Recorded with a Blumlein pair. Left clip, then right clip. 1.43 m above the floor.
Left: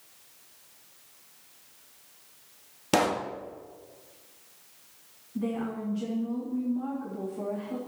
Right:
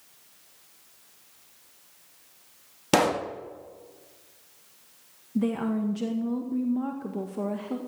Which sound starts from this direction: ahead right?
A woman speaking, at 5.3 s.